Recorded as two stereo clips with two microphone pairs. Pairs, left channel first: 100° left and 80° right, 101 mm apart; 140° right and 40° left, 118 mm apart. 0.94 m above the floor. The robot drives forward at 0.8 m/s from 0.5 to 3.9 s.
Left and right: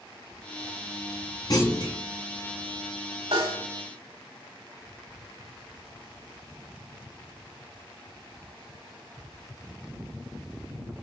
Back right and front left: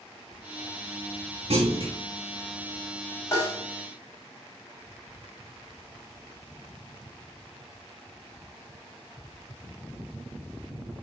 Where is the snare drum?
75° right, 5 m; by 3.6 s 80° right, 5 m.